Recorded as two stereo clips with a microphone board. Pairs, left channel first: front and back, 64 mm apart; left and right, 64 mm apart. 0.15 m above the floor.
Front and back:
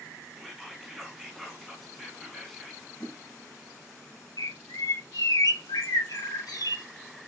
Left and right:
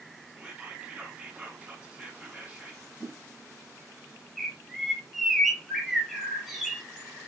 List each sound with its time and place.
0.4 s whispering: 85° right, 1.1 m
3.0 s a whoosh: 60° left, 2 m
4.4 s a bird: straight ahead, 1.0 m